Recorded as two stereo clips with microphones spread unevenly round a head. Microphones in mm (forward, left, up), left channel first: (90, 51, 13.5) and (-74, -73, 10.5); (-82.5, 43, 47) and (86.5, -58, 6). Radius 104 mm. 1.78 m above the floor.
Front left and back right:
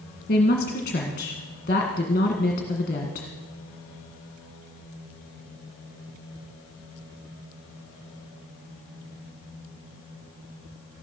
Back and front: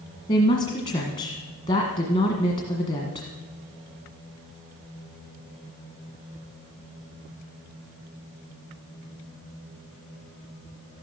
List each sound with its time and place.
0.3 s a woman speaking: 90° left, 1.6 m